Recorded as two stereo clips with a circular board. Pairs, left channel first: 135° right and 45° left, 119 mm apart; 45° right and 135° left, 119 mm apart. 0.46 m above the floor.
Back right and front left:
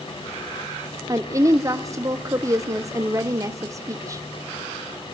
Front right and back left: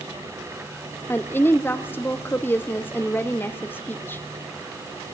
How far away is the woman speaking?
About 0.8 m.